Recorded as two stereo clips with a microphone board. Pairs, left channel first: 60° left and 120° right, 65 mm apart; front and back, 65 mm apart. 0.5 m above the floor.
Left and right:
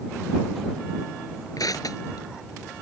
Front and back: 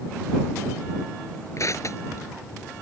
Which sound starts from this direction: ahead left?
Crushing, at 1.6 s.